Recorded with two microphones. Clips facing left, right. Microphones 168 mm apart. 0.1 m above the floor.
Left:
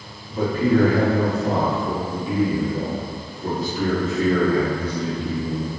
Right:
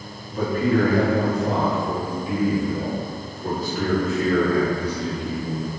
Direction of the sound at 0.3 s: 25° left (ahead or behind).